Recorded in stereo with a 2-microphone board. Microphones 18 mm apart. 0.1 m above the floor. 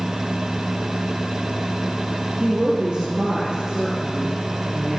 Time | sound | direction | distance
2.4 | a woman speaking | 55° right (ahead or behind) | 3 m